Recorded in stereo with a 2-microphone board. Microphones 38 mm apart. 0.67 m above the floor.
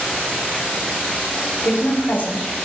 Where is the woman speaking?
50° left (ahead or behind), 2.0 m.